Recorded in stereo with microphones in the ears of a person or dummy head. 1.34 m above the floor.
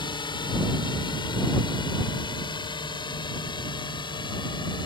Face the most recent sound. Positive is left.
turn(degrees=20)  # may be behind; listen again after turning